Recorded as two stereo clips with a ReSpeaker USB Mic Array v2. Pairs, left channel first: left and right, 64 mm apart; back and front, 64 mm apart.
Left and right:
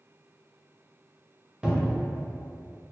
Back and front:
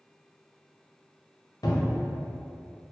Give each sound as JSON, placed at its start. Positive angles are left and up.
{"t": 1.6, "sound": "a cupboard door", "azimuth_deg": -165, "distance_m": 0.7}